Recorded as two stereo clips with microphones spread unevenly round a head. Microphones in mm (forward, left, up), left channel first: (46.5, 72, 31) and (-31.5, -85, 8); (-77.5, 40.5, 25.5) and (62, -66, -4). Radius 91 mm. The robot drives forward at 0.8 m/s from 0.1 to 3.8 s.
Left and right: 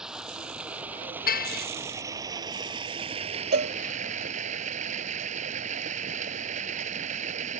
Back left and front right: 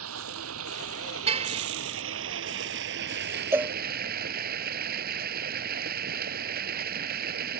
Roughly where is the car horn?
Ahead left.